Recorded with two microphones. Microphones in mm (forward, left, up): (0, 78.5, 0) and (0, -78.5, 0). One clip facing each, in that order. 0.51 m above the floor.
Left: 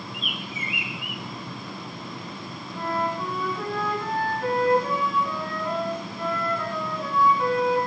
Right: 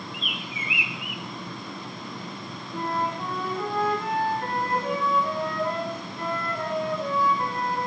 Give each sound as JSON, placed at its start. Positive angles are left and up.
{"t": 0.1, "sound": "a bird", "side_deg": 45, "distance_m": 0.8}
{"t": 2.7, "sound": "a flute", "side_deg": -55, "distance_m": 3.5}